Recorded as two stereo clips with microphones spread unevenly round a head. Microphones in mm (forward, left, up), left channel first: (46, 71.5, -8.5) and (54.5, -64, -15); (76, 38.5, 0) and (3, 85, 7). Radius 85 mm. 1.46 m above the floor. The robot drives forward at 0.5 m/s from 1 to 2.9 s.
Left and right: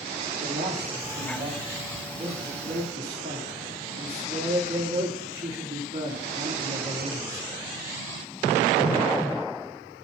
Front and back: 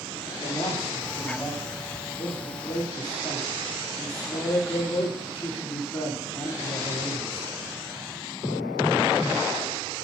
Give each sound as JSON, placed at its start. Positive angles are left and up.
{"t": 0.4, "sound": "a man speaking", "azimuth_deg": -105, "distance_m": 3.5}